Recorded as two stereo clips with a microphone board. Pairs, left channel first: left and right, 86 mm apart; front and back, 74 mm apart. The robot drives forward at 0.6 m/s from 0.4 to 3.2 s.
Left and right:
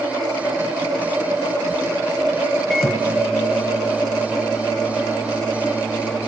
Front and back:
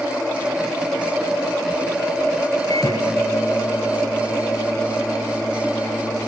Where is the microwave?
Straight ahead, 1.7 m; by 6.3 s 5° left, 1.4 m.